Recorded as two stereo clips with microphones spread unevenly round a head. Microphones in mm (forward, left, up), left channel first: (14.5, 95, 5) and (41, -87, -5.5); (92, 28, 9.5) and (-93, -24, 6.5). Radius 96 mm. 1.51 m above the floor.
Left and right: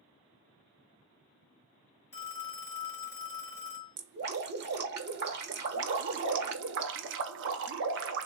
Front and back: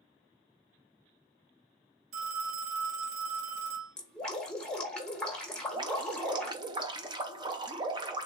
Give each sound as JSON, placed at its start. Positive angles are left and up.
{"t": 2.1, "sound": "a phone ringing", "azimuth_deg": 175, "distance_m": 1.6}
{"t": 4.0, "sound": "dripping", "azimuth_deg": -70, "distance_m": 1.0}
{"t": 5.5, "sound": "dripping", "azimuth_deg": -95, "distance_m": 0.5}